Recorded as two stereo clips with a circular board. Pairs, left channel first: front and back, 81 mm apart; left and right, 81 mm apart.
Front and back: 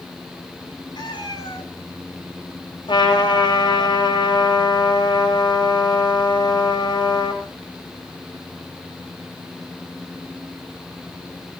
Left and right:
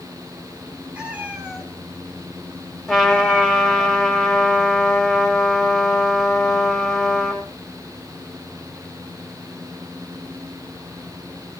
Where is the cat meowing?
20° right, 5 m; by 3.9 s 15° right, 2.5 m.